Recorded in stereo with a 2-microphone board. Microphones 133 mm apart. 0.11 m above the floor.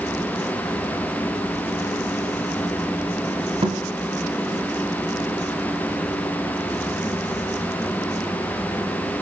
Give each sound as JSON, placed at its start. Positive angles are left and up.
{"t": 3.6, "sound": "a thud", "side_deg": -40, "distance_m": 7.5}